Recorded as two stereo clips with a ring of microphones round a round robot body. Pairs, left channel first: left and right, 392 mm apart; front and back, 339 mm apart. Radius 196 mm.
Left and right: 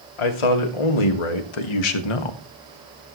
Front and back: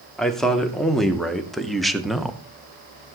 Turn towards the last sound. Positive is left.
turn(degrees=90)